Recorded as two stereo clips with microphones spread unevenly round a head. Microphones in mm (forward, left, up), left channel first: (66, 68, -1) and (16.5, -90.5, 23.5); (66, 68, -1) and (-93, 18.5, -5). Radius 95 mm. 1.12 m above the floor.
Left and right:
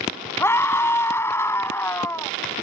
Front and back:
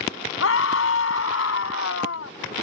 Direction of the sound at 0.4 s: 5° right.